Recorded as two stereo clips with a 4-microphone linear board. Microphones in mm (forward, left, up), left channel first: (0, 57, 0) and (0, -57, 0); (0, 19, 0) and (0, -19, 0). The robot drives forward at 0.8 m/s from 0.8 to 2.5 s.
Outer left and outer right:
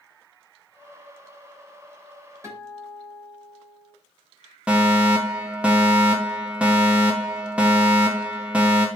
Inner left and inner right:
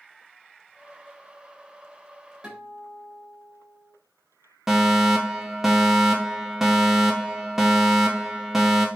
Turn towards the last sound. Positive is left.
turn(degrees=-10)  # may be behind; listen again after turning